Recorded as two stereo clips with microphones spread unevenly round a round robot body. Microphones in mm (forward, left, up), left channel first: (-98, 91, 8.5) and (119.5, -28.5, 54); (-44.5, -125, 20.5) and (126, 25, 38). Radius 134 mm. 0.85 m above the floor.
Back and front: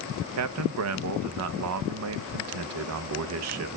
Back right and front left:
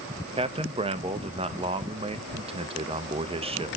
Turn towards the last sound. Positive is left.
turn(degrees=-25)